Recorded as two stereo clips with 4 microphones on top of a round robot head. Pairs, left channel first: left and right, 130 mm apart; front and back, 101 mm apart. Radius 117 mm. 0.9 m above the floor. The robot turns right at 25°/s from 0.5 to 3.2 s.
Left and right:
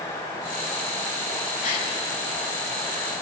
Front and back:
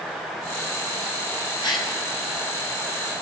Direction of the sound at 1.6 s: 45° left.